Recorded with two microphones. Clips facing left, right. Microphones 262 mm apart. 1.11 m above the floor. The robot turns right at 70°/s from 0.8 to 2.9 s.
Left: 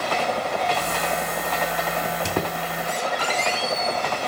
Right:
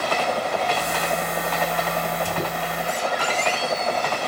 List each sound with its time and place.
2.0 s a squeak: 70° left (ahead or behind), 2 m; by 4.0 s 45° left (ahead or behind), 2 m